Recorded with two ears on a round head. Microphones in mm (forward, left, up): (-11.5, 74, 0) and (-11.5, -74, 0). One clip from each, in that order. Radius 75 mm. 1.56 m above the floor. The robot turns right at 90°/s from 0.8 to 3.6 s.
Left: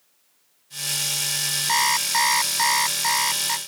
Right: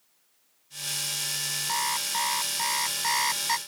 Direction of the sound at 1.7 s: 50° left.